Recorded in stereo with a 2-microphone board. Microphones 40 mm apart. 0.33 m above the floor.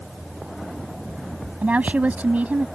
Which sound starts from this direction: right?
A woman speaking, at 1.6 s.